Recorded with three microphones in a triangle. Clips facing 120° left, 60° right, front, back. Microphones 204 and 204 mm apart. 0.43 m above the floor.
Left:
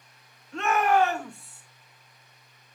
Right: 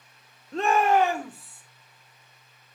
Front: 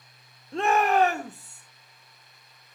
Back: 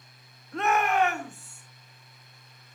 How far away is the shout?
About 1.0 m.